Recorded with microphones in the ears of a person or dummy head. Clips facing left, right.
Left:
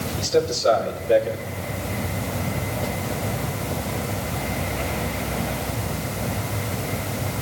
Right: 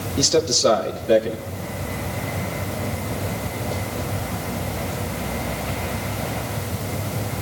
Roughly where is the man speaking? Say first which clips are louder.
Right 2 dB; right.